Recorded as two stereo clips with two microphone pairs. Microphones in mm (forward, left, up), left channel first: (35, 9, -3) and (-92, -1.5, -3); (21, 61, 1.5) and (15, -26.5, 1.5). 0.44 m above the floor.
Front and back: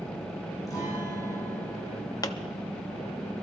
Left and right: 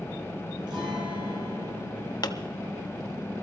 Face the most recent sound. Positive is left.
turn(degrees=65)